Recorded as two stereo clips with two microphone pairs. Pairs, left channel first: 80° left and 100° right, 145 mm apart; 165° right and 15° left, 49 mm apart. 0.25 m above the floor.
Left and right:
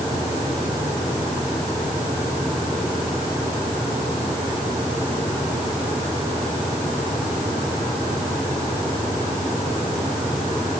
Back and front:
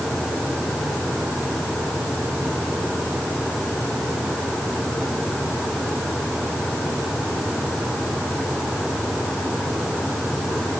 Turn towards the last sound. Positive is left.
No sound to turn to.